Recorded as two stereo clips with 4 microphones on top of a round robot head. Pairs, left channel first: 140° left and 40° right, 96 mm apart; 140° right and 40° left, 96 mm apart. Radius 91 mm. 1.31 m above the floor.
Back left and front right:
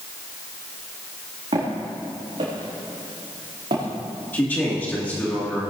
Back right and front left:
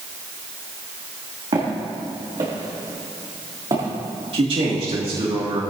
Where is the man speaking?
70° left, 2 m.